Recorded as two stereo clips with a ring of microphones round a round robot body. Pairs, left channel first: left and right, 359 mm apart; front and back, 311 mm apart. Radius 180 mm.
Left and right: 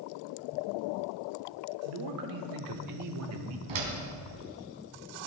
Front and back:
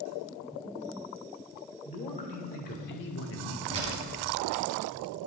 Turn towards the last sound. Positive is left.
turn(degrees=-105)